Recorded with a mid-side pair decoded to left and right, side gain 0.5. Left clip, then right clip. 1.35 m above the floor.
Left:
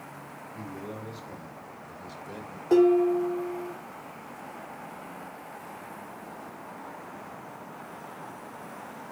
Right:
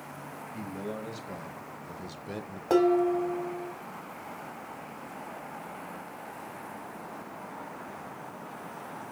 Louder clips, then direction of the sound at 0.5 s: Right 2 dB; 65° right.